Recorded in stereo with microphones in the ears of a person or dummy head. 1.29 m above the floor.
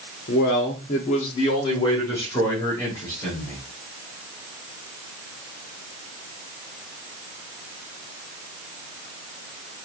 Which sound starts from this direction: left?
A man speaking, at 0.3 s.